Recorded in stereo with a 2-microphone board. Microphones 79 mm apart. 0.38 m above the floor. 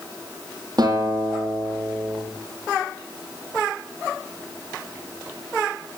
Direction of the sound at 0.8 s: 55° right (ahead or behind).